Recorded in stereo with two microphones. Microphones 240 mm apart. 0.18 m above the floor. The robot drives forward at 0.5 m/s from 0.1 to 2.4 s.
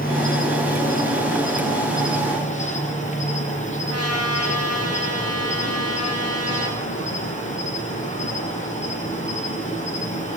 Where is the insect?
40° left (ahead or behind), 3.5 m; by 10.4 s 30° left (ahead or behind), 4.5 m.